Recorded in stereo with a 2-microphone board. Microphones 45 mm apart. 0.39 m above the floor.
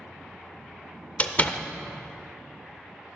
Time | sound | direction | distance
1.2 | a door slam | 30° left (ahead or behind) | 0.6 m